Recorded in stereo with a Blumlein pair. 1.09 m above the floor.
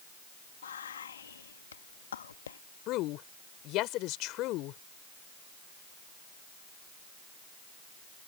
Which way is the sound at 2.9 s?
40° left.